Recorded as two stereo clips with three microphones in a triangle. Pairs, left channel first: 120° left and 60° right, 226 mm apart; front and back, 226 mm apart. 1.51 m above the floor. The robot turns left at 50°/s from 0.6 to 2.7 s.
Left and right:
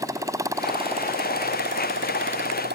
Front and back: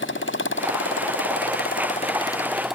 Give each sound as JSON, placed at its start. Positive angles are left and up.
{"t": 0.0, "sound": "a motorcycle", "azimuth_deg": 15}